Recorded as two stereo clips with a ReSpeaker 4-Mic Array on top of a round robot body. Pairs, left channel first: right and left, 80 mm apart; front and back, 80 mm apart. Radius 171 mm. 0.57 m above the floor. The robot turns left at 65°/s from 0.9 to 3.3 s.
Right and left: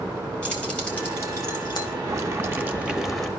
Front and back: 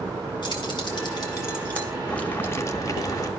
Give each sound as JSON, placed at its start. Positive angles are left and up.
{"t": 0.4, "sound": "keys jangling", "azimuth_deg": -15, "distance_m": 2.0}
{"t": 2.1, "sound": "boiling", "azimuth_deg": 70, "distance_m": 1.0}